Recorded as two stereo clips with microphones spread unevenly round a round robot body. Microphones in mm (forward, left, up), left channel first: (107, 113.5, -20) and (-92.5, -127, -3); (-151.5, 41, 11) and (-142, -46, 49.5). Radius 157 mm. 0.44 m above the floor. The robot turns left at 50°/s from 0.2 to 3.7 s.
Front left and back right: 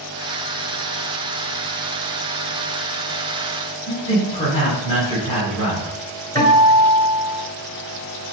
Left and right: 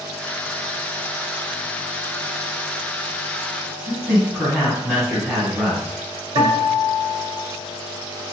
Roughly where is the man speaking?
Left.